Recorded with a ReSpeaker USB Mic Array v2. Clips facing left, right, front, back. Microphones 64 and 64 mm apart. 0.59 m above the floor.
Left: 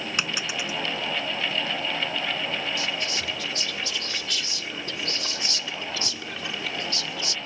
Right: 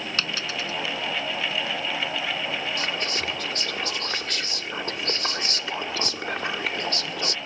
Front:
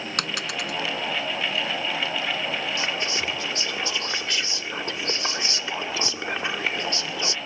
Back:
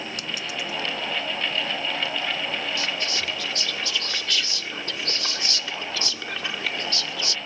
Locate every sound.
0.2 s a dropped coin: 15° left
2.8 s whispering: 60° right